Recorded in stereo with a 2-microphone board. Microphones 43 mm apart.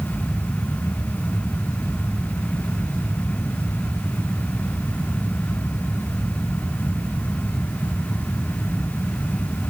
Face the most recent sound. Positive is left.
No sound to turn to.